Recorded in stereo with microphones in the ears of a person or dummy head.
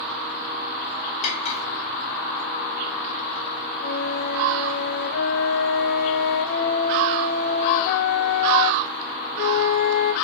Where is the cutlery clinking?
35° left (ahead or behind), 1.1 m.